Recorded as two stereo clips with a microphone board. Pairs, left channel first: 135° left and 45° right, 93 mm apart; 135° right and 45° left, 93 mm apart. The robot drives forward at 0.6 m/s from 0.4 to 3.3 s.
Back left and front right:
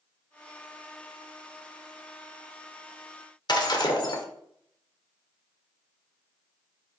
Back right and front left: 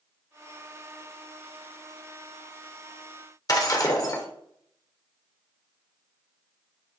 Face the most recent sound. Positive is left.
turn(degrees=175)